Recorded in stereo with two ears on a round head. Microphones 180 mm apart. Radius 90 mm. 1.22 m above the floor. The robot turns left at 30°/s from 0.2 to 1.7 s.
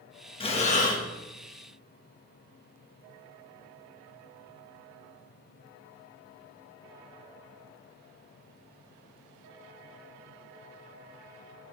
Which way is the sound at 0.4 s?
30° left (ahead or behind).